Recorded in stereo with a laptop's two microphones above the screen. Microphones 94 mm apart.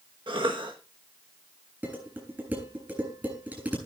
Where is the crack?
No crack in this recording.